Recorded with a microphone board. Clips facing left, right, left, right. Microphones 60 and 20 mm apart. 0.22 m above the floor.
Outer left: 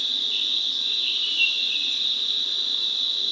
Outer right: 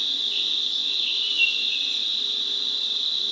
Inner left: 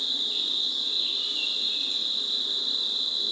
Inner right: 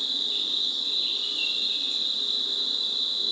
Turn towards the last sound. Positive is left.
turn(degrees=35)  # may be behind; listen again after turning